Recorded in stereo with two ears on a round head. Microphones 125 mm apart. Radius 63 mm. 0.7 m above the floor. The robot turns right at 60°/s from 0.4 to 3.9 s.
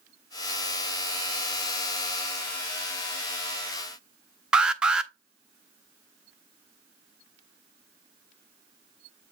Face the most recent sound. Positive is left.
turn(degrees=-5)  # may be behind; listen again after turning